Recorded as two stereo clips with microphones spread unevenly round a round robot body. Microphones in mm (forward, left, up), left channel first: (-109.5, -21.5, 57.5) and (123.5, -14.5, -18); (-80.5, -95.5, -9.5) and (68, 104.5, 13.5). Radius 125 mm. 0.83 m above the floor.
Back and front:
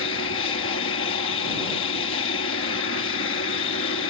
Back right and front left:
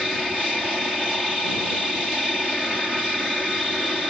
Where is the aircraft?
145° left.